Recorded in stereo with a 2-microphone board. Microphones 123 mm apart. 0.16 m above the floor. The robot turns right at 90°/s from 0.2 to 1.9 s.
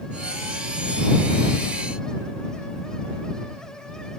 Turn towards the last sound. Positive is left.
No sound to turn to.